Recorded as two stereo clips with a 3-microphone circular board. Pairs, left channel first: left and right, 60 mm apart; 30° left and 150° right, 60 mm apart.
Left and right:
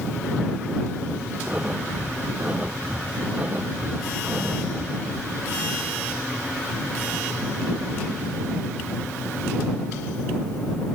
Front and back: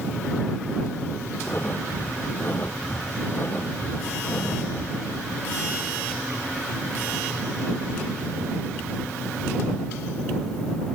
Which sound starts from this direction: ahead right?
Breathing, at 1.4 s.